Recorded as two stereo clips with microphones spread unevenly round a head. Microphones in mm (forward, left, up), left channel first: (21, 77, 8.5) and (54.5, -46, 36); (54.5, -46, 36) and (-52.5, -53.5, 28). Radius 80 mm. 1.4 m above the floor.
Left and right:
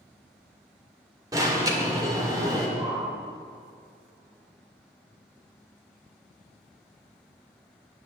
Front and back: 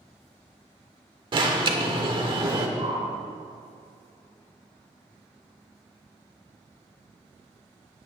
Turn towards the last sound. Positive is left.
turn(degrees=-150)